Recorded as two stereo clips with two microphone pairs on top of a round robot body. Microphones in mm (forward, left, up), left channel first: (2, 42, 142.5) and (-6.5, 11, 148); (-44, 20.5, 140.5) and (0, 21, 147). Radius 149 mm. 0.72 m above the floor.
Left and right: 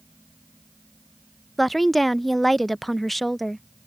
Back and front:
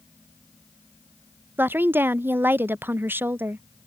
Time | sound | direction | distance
1.6 | a woman speaking | 10° left | ?